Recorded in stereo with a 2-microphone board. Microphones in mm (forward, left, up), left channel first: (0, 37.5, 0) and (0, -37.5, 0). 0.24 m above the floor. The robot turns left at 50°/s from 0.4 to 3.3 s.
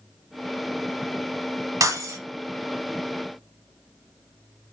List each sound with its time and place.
1.8 s breaking glass: 50° right (ahead or behind), 0.7 m; by 2.2 s 55° right (ahead or behind), 0.7 m